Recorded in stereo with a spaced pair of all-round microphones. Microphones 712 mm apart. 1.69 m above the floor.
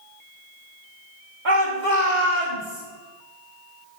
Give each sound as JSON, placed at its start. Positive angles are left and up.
{"t": 1.4, "sound": "a shout", "side_deg": -85, "distance_m": 1.7}